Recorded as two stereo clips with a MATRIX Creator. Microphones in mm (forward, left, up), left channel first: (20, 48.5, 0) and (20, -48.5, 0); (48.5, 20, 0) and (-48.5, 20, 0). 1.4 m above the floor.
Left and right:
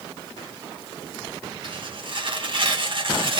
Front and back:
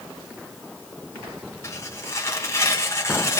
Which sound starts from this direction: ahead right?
Tearing paper, at 1.6 s.